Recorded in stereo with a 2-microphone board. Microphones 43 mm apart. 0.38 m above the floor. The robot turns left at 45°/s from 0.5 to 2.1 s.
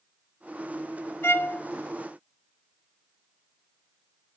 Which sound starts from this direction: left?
A violin, at 1.2 s.